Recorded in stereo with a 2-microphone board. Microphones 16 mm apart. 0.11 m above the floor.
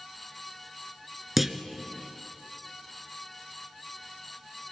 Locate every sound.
1.4 s a clunk: 5° right (ahead or behind), 1.0 m